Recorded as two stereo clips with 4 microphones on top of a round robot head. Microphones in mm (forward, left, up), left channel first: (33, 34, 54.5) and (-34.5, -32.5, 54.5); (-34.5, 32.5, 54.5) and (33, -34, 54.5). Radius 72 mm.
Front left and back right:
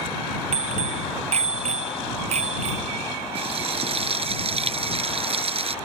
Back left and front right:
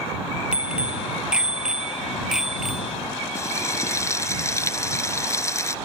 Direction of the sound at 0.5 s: 125° right.